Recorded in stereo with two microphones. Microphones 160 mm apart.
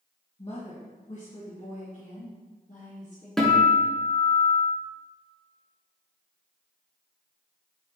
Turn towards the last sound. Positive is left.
turn(degrees=5)  # may be behind; listen again after turning